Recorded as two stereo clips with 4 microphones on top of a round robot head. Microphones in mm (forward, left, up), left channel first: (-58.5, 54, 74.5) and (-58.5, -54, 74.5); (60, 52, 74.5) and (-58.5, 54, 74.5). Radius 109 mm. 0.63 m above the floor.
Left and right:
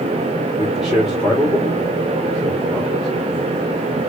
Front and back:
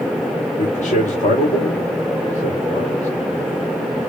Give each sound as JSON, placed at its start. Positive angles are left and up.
{"t": 0.6, "sound": "a man speaking", "azimuth_deg": 0, "distance_m": 3.0}